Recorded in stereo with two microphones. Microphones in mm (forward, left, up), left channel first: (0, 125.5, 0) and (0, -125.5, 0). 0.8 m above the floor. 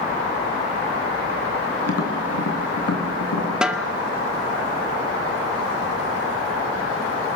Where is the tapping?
80° left, 3 m.